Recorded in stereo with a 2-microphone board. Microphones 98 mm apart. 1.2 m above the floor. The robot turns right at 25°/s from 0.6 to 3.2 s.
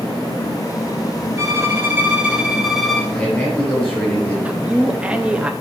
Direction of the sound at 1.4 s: 35° right.